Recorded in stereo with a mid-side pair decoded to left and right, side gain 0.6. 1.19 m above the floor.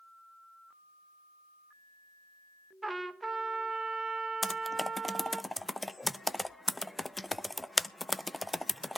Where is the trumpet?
15° right, 1.4 m.